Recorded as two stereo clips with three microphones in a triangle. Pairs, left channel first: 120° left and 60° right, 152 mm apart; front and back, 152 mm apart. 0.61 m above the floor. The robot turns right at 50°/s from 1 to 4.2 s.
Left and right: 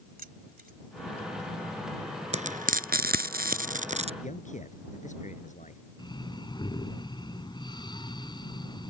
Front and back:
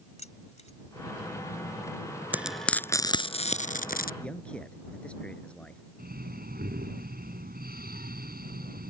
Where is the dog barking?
No dog barking in this recording.